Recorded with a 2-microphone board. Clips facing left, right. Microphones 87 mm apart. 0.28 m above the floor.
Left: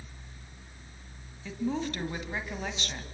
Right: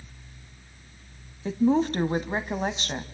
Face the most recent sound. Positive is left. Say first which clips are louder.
# right 10 dB
turn(degrees=-40)  # may be behind; listen again after turning